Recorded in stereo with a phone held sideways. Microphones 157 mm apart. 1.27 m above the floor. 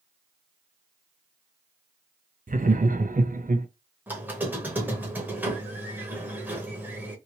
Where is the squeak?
10° right (ahead or behind), 1.0 m.